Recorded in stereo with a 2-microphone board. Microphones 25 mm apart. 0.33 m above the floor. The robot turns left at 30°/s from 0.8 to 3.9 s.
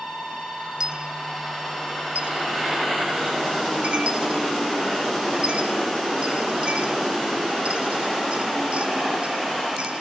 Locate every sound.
0.8 s a dropped coin: 35° right (ahead or behind), 1.0 m; by 10.0 s 50° right (ahead or behind), 1.0 m